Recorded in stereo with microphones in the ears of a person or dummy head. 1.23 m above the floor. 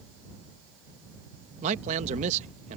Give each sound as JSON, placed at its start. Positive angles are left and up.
{"t": 1.6, "sound": "a man speaking", "side_deg": -35}